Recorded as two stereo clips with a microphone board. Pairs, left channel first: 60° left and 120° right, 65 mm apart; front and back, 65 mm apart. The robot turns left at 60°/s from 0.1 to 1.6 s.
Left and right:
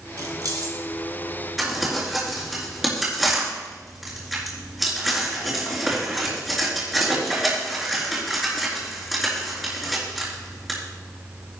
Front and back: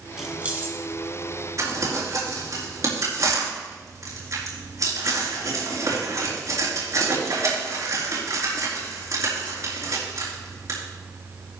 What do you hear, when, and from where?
0.2 s keys jangling: 95° right, 2.0 m; by 0.8 s 130° right, 2.0 m
1.6 s crumpling: 150° left, 4.5 m